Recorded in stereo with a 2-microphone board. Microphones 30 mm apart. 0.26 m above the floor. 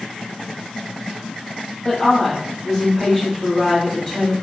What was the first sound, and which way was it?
A woman speaking, 20° left (ahead or behind).